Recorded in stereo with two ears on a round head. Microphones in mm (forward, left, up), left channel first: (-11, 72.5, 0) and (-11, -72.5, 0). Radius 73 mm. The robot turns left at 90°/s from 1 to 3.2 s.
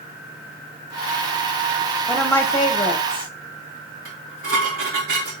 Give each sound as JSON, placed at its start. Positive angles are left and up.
{"t": 2.1, "sound": "a woman speaking", "azimuth_deg": 180, "distance_m": 0.8}
{"t": 4.0, "sound": "dishes clattering", "side_deg": -70, "distance_m": 3.5}